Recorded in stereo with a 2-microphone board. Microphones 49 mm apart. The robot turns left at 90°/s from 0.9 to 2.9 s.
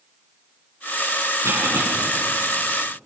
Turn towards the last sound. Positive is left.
turn(degrees=135)